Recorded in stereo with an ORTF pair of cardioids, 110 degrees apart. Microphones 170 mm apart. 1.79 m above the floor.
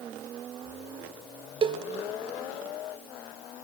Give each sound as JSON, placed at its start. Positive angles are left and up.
{"t": 1.6, "sound": "a cowbell", "azimuth_deg": -30, "distance_m": 0.8}